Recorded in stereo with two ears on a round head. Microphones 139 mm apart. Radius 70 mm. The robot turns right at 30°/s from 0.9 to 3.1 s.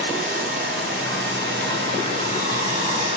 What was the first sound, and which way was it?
Running water, 115° right.